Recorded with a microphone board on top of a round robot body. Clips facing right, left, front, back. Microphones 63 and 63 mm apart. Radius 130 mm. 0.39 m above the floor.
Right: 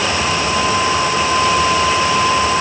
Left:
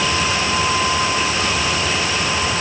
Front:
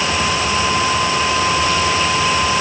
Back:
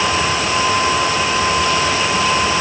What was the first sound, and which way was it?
Only background noise.